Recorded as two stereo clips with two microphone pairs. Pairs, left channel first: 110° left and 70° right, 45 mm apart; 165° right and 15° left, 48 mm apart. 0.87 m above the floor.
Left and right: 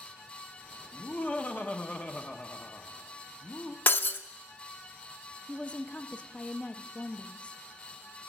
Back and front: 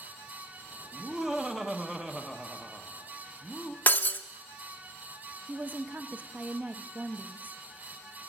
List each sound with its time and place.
0.9 s laughter: 85° left, 0.9 m
3.9 s breaking glass: 145° left, 0.5 m
5.5 s a woman speaking: 50° left, 0.6 m